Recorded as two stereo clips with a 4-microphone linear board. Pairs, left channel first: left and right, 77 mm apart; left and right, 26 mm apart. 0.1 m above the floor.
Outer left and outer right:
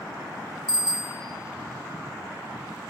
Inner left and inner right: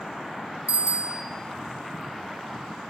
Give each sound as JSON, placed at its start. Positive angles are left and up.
{"t": 0.7, "sound": "a bicycle bell", "side_deg": -70, "distance_m": 3.0}